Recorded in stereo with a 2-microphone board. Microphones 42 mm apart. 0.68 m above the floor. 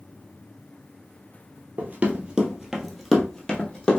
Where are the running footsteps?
35° right (ahead or behind), 1.2 m; by 4.0 s 25° left (ahead or behind), 1.5 m.